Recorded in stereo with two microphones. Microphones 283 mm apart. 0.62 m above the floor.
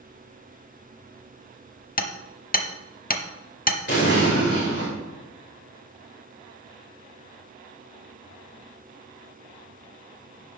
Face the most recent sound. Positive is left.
turn(degrees=40)  # may be behind; listen again after turning